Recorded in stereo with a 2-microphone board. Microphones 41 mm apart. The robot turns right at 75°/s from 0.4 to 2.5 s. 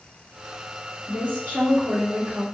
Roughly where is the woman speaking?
Behind right.